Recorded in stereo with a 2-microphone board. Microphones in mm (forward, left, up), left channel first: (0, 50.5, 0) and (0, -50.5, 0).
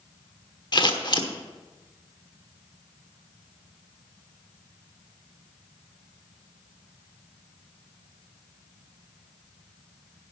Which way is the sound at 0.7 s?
45° left (ahead or behind).